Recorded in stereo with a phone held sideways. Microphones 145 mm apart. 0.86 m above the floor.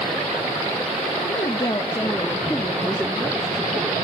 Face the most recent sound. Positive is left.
turn(degrees=-15)  # may be behind; listen again after turning